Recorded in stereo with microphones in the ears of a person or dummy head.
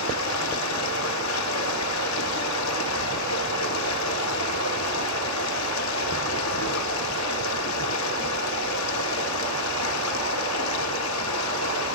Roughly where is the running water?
Left.